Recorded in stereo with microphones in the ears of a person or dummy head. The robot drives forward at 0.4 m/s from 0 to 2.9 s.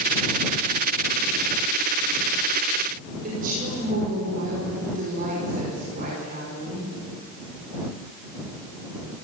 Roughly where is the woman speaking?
Right.